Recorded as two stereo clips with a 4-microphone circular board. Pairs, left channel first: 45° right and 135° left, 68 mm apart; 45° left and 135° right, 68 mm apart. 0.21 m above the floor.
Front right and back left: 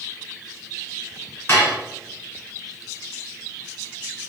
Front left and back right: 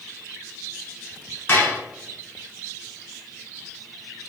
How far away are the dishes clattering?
About 1.2 m.